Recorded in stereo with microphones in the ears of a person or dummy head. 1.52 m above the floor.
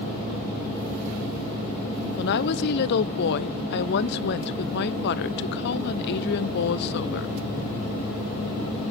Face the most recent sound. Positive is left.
turn(degrees=60)  # may be behind; listen again after turning